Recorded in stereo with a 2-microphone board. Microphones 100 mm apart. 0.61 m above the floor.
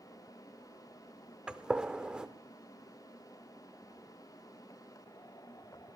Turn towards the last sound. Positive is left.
turn(degrees=-10)  # may be behind; listen again after turning